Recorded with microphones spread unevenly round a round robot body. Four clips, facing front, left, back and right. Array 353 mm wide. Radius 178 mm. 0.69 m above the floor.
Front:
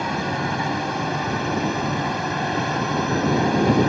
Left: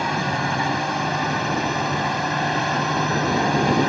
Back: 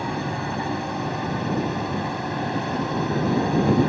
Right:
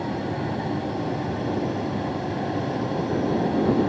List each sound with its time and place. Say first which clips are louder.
0.0 s a drone: left 4 dB, front 3 dB; 70° left